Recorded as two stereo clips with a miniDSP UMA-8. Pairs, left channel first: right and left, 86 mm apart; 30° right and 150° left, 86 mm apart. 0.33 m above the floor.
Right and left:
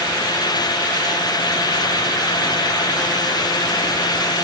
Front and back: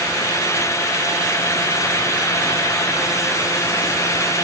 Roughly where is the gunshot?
No gunshot in this recording.